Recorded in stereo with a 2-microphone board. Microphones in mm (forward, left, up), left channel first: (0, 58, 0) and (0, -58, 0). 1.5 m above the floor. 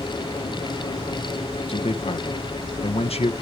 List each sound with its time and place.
1.7 s a man speaking: 65° left (ahead or behind), 1.4 m